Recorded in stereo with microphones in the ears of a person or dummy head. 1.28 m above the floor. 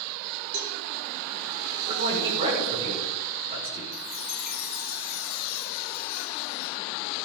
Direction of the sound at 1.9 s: 25° right (ahead or behind).